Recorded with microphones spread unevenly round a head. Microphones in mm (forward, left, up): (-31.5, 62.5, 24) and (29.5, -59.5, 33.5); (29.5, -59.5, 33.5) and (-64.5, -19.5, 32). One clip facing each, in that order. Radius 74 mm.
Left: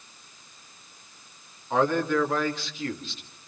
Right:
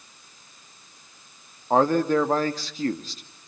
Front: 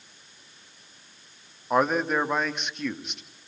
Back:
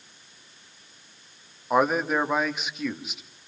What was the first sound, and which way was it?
A man speaking, 115° right.